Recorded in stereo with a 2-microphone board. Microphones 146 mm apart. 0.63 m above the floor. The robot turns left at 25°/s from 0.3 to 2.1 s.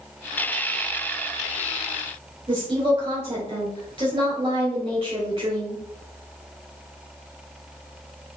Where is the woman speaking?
40° right (ahead or behind), 3 m.